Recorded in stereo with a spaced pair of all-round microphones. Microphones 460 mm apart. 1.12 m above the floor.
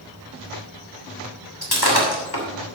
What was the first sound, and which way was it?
Breaking glass, 50° left (ahead or behind).